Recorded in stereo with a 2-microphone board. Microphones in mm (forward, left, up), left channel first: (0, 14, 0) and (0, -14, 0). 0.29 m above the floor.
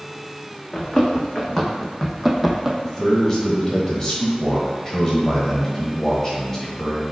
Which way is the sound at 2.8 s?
20° left (ahead or behind).